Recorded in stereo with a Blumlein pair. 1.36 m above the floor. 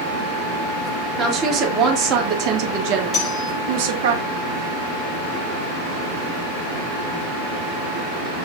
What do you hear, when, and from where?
1.2 s a woman speaking: 25° right, 3.5 m; by 4.1 s 50° right, 2.5 m
3.1 s cutlery clinking: 30° left, 6 m